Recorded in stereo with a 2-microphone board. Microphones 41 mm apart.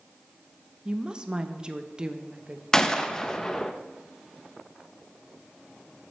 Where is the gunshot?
15° left (ahead or behind), 0.6 m.